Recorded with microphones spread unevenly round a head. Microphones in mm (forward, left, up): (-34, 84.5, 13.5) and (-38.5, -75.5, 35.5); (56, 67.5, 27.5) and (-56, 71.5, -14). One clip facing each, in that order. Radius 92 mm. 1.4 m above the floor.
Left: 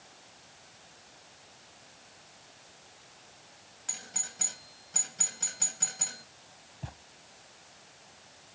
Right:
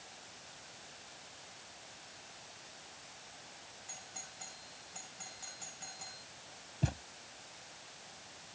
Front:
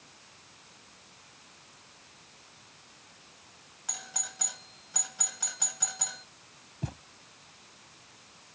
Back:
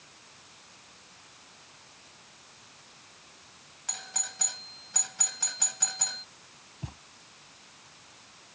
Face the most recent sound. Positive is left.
turn(degrees=-45)